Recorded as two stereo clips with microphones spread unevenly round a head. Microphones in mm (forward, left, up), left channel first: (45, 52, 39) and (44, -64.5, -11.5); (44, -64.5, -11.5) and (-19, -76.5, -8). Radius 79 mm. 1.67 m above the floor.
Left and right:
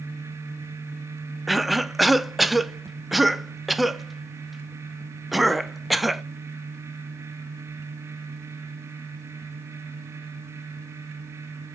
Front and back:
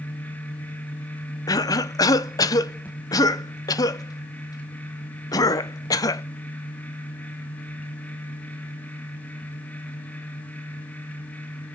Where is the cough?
15° left, 0.6 m.